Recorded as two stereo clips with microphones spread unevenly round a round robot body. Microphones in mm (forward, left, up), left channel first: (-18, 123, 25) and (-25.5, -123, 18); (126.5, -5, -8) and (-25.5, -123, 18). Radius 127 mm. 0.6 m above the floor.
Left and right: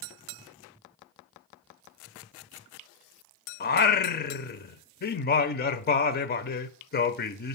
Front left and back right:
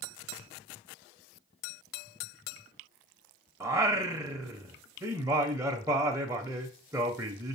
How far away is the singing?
About 0.5 m.